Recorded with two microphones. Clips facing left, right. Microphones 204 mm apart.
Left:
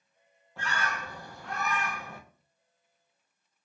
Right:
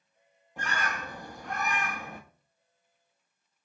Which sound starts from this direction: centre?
A bird, at 0.6 s.